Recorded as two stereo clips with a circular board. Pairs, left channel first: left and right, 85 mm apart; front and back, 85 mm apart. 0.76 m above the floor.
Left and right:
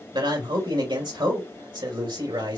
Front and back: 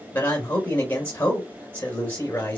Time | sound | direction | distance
0.1 | a man speaking | 70° right | 3.5 m